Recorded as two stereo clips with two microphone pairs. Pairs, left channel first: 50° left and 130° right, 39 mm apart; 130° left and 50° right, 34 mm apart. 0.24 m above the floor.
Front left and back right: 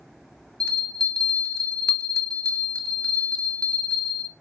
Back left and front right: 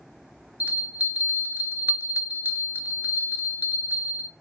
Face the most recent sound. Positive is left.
turn(degrees=-20)